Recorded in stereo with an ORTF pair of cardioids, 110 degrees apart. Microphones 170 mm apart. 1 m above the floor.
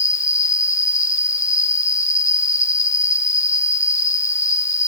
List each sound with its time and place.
0.0 s an insect: 20° left